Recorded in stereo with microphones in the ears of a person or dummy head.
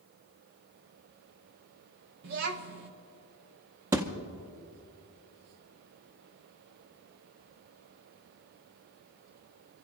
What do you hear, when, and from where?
2.2 s a child speaking: 55° right (ahead or behind), 0.8 m
3.9 s a thud: 20° right (ahead or behind), 0.9 m